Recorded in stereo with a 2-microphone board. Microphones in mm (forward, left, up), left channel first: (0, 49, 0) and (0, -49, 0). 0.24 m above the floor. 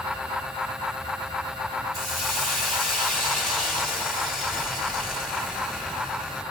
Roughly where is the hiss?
Centre.